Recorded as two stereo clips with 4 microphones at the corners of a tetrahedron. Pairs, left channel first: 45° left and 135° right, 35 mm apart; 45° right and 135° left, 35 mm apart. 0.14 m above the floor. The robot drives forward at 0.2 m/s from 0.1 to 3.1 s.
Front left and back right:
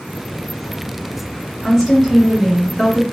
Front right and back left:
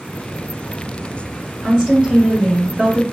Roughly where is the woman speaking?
Behind left.